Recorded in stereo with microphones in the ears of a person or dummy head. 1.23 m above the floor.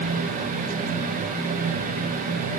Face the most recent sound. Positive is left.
No sound to turn to.